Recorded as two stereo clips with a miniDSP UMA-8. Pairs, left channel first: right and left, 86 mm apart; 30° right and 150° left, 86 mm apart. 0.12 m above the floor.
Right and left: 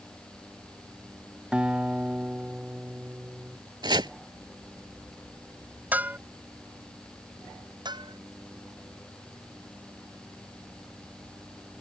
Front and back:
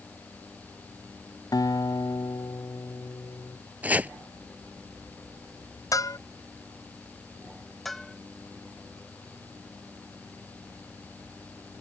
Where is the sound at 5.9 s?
20° left.